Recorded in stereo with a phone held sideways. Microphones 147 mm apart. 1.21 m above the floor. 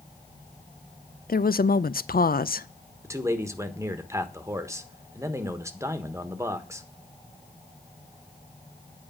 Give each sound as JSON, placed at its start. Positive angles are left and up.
{"t": 1.3, "sound": "a woman speaking", "side_deg": 80, "distance_m": 0.5}
{"t": 3.0, "sound": "a man speaking", "side_deg": -20, "distance_m": 1.3}